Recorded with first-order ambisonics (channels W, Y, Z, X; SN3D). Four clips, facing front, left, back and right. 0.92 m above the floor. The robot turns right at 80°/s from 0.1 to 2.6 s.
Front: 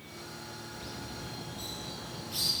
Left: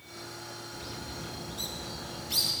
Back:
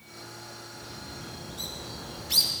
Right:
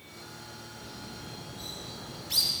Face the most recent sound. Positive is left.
turn(degrees=-145)